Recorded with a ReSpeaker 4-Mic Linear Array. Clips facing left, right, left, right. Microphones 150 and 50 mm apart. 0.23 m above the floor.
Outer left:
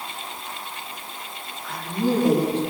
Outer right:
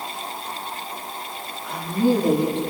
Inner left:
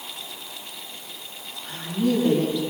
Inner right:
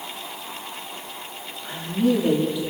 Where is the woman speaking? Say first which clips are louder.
Outer right 4 dB, inner right 2 dB; 10° right (ahead or behind), 8 m.